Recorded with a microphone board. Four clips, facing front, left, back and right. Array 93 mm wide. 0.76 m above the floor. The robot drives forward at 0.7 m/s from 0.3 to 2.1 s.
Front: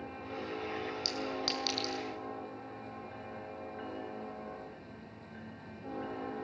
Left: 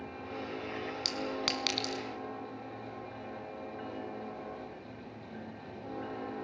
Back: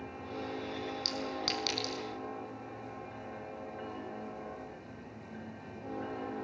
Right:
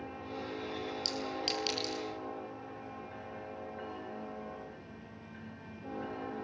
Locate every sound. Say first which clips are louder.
1.1 s a clink: left 3 dB, even; 85° left, 5.5 m; by 2.0 s 95° left, 5.5 m